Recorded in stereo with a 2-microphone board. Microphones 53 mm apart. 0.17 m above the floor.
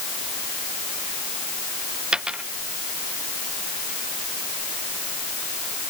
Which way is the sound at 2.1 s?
15° right (ahead or behind).